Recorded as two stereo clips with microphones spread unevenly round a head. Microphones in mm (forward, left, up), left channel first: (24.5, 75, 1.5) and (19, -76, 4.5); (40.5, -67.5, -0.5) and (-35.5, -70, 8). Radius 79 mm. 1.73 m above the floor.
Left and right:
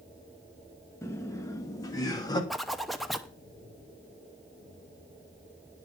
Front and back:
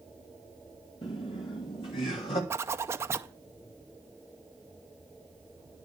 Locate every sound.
1.0 s laughter: 15° left, 2 m; by 2.4 s 25° left, 3 m
2.5 s a zipper: straight behind, 0.7 m